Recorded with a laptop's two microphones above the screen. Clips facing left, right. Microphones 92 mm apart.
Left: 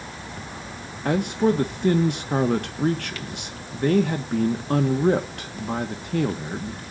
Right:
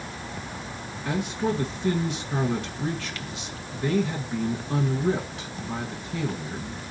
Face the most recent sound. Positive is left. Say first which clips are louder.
# left 6 dB
turn(degrees=55)  # may be behind; listen again after turning